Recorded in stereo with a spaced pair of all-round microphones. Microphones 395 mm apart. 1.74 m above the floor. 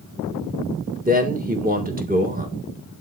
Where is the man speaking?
20° right (ahead or behind), 1.6 m.